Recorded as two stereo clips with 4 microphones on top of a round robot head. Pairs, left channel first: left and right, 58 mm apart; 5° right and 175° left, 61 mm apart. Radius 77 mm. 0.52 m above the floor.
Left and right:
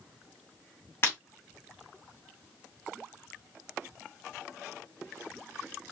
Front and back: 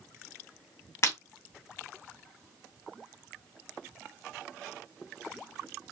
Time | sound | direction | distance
1.0 | breaking glass | 35° left | 2.5 m